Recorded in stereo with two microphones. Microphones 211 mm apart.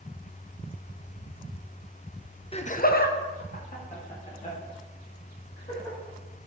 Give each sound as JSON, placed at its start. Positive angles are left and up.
{"t": 2.5, "sound": "laughter", "side_deg": 30, "distance_m": 0.7}